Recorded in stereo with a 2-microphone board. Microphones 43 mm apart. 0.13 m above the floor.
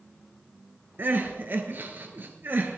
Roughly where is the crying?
Right.